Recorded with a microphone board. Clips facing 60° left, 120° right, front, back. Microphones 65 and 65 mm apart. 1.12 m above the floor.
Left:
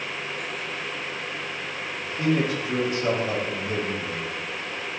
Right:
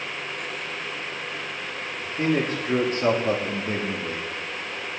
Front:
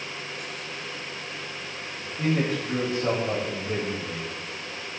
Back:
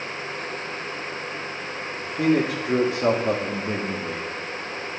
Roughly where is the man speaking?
Behind.